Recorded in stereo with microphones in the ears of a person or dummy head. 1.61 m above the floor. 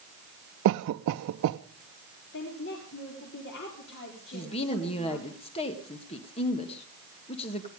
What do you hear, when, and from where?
0.7 s a cough: 60° right (ahead or behind), 0.5 m
2.3 s a woman speaking: 60° left (ahead or behind), 4 m
4.3 s a woman speaking: 30° left (ahead or behind), 2.0 m